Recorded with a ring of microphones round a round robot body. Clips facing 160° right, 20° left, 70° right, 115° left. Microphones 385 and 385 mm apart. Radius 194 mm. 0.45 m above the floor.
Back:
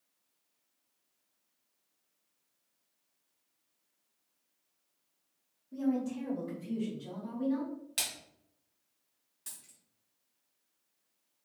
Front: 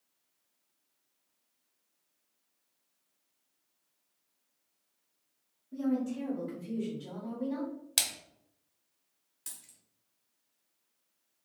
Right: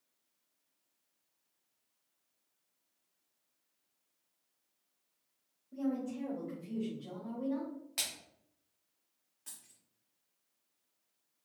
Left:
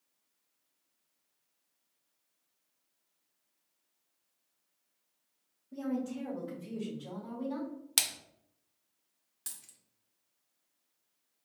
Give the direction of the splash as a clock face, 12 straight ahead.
9 o'clock.